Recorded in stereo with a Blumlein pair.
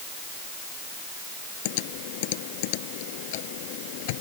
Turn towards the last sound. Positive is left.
turn(degrees=50)